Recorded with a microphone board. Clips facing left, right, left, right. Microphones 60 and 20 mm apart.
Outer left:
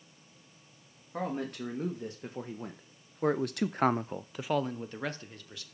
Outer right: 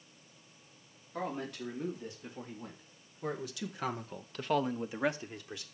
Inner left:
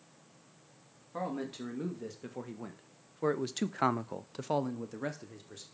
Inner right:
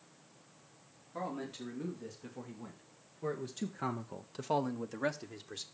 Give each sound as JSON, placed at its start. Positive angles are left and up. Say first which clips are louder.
{"t": 1.1, "sound": "a man speaking", "louder": "outer left 3 dB, inner left 3 dB", "side_deg": 45, "distance_m": 2.5}